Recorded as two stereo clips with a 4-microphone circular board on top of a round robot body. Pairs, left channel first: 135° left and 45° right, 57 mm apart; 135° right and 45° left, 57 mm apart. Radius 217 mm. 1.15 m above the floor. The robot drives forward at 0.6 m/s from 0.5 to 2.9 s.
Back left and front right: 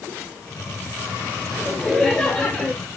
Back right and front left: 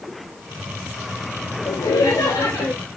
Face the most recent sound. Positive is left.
turn(degrees=-160)